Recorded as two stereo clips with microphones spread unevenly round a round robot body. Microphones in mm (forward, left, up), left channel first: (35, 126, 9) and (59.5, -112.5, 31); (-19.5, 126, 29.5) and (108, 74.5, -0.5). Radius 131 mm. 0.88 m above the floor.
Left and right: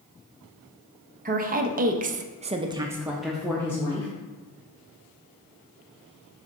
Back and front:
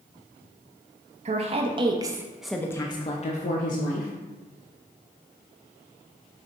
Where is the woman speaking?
30° right, 1.0 m; by 4.1 s 170° left, 1.0 m.